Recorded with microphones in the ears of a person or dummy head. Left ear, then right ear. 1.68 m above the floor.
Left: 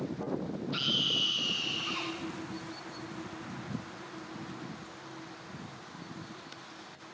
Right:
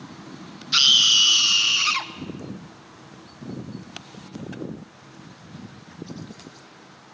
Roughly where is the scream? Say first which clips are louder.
Right 14 dB; right.